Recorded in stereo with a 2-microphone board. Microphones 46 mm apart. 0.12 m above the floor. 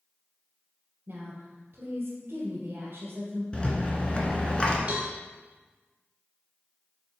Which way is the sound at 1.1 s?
45° right (ahead or behind).